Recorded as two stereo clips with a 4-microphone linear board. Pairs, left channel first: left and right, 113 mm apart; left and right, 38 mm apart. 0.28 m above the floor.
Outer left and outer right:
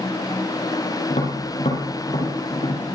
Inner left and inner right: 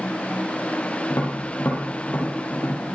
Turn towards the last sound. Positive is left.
turn(degrees=70)  # may be behind; listen again after turning